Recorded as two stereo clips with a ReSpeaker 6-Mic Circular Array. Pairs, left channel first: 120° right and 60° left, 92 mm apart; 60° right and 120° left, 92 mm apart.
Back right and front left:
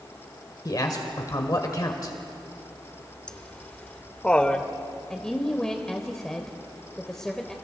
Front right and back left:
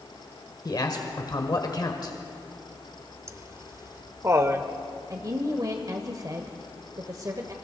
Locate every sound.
0.7 s a man speaking: 85° right, 1.6 m
3.3 s laughter: 165° left, 1.1 m
5.1 s a woman speaking: 160° left, 1.4 m